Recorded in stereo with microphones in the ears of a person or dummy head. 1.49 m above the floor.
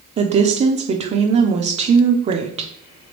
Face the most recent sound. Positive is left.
turn(degrees=-30)  # may be behind; listen again after turning